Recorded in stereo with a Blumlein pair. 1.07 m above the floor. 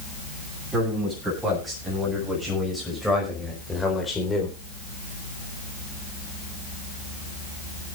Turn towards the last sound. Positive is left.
turn(degrees=20)